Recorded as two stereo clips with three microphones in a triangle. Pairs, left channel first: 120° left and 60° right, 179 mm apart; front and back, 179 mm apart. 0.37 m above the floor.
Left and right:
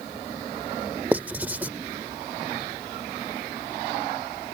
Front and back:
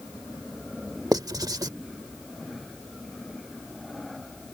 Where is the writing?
135° right.